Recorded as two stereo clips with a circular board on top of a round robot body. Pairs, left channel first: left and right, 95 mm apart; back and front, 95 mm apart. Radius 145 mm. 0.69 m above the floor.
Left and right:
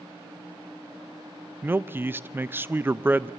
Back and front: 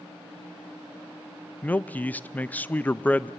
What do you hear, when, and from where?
1.6 s a man speaking: 130° right, 0.6 m